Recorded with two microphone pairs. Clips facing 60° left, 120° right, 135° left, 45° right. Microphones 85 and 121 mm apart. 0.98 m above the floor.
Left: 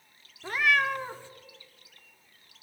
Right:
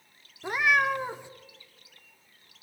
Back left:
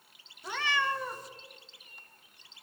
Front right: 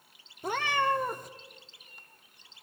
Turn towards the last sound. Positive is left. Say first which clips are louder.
# right 1 dB, front right 4 dB
turn(degrees=-50)